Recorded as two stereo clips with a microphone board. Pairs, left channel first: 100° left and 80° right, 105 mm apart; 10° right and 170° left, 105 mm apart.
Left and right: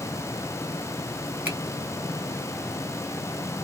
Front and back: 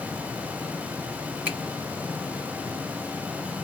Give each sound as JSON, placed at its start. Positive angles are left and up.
{"t": 1.4, "sound": "a finger snap", "azimuth_deg": -130, "distance_m": 1.3}